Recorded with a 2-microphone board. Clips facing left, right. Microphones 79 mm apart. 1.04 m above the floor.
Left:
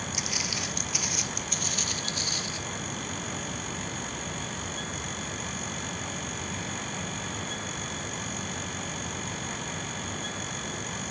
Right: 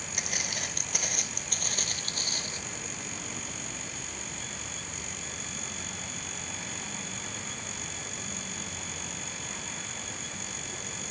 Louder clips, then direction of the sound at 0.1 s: Left 3 dB; 50° right (ahead or behind).